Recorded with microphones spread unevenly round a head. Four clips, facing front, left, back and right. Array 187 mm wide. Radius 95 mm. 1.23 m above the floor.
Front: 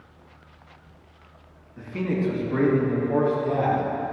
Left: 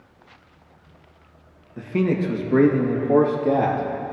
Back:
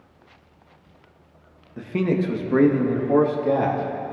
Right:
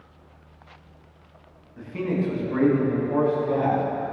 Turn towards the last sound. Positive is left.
turn(degrees=135)